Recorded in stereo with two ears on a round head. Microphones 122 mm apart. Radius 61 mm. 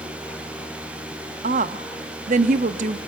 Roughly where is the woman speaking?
Right.